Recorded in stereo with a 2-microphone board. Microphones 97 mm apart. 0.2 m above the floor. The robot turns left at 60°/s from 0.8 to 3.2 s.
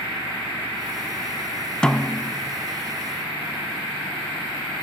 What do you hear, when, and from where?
1.8 s a snare drum: 10° left (ahead or behind), 0.8 m; by 2.3 s 25° left (ahead or behind), 0.8 m